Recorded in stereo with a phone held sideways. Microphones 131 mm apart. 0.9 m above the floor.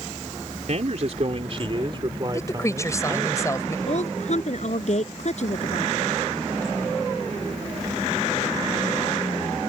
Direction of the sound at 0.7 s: 60° right (ahead or behind).